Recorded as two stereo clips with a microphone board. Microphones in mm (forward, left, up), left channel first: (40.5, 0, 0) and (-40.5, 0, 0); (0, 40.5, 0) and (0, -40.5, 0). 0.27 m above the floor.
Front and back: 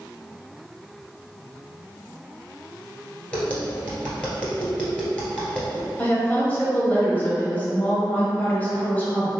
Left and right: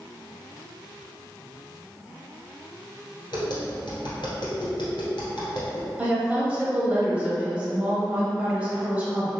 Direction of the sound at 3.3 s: 75° left.